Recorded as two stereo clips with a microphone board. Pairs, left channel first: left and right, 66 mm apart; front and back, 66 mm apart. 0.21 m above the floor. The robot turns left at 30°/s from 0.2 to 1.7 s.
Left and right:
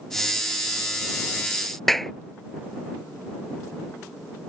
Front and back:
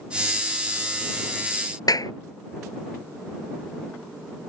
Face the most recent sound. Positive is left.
turn(degrees=5)